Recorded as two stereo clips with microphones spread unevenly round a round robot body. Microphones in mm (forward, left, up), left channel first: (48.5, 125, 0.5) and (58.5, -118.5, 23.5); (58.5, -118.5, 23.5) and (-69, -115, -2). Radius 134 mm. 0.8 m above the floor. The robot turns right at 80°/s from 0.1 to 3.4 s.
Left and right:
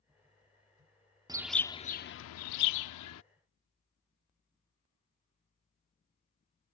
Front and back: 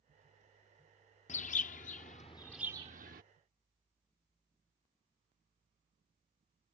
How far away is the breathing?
No breathing in this recording.